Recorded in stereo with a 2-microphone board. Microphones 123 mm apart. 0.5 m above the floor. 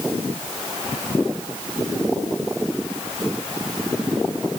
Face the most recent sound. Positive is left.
No sound to turn to.